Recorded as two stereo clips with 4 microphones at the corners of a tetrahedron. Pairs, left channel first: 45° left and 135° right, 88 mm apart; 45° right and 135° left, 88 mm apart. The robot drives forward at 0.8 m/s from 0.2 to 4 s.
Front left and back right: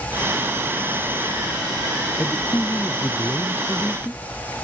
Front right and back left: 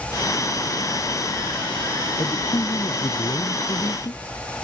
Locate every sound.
2.2 s a man speaking: 15° right; by 4.2 s 20° right